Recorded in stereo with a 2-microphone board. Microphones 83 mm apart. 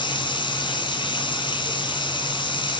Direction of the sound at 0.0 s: 70° left (ahead or behind).